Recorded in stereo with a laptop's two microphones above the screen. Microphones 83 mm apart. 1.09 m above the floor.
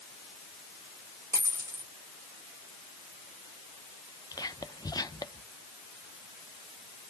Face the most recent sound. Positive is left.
turn(degrees=50)  # may be behind; listen again after turning